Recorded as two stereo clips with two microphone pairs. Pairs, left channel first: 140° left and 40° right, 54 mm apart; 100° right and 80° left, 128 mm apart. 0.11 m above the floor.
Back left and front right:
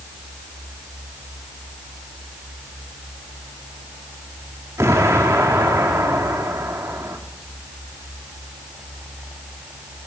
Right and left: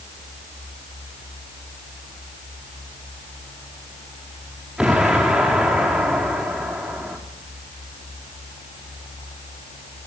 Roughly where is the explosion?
Ahead.